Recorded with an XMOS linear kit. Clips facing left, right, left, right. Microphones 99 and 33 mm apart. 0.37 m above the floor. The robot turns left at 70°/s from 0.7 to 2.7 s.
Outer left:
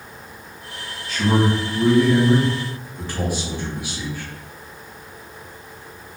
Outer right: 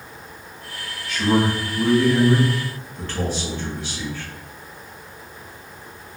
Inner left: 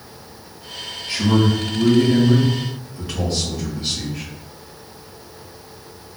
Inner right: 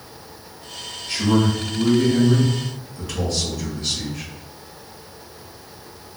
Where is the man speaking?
130° left, 1.9 m; by 4.3 s 20° left, 1.9 m.